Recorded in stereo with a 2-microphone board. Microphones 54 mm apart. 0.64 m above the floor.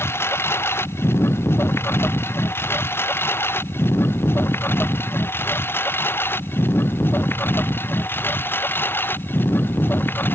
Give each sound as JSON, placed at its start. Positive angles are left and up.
{"t": 0.0, "sound": "a lawn mower", "side_deg": 50}